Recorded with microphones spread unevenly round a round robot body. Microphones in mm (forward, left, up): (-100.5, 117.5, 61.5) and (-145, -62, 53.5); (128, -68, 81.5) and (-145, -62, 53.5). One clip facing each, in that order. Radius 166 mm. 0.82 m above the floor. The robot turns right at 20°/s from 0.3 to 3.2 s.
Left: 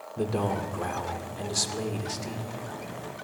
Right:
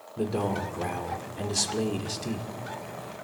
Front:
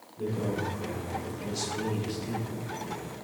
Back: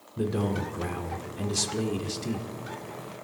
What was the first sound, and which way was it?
A man speaking, 165° left.